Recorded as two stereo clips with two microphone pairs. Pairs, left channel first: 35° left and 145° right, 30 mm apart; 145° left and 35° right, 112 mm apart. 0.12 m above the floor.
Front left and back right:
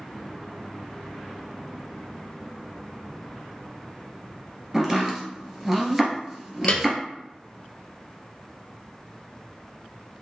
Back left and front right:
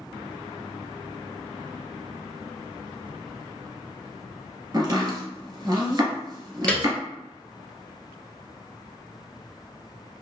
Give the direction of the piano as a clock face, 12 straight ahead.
10 o'clock.